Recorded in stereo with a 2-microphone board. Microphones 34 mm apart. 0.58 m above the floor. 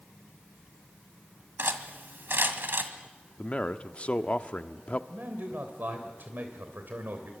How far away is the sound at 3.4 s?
About 0.9 m.